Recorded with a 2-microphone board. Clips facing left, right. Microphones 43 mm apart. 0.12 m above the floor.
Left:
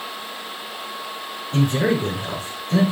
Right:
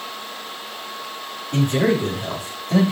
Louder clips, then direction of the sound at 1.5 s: Right 1 dB; 70° right (ahead or behind).